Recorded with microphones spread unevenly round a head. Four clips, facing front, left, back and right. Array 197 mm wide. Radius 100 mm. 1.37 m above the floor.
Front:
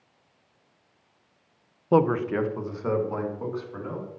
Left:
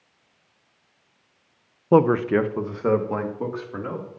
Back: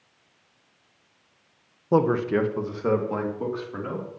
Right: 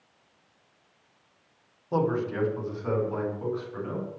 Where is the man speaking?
85° left, 0.7 m; by 4.1 s 110° left, 3.5 m.